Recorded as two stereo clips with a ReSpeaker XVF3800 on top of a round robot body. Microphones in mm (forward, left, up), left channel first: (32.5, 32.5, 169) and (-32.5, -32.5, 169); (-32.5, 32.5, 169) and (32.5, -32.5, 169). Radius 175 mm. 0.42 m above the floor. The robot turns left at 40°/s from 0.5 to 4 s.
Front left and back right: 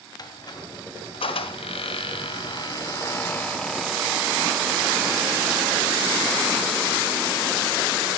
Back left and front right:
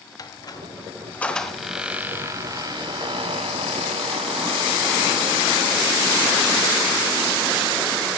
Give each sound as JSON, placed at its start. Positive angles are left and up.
{"t": 0.2, "sound": "a squeak", "azimuth_deg": 90, "distance_m": 1.6}